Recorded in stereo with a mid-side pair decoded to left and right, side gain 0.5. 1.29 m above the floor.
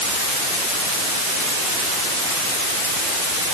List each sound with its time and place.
Only background noise.